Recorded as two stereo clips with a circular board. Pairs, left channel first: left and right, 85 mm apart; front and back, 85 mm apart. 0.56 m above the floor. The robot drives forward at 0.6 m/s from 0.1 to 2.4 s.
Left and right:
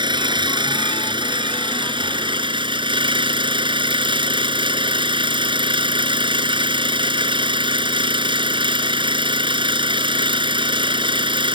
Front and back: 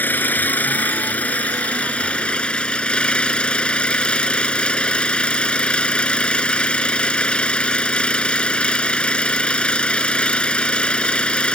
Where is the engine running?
65° right; by 11.6 s 75° right.